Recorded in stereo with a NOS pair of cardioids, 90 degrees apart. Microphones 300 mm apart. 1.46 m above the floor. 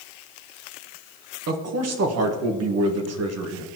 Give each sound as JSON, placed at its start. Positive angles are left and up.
{"t": 1.5, "sound": "a man speaking", "azimuth_deg": -55, "distance_m": 1.4}